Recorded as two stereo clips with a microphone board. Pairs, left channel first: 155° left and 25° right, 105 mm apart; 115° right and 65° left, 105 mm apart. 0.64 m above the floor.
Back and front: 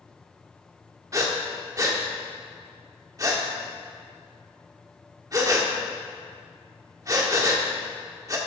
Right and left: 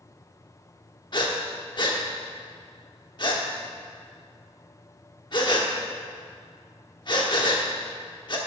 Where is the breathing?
75° right, 1.2 m.